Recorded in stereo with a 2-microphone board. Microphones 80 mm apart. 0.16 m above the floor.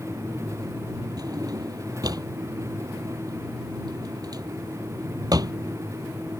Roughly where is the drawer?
Right.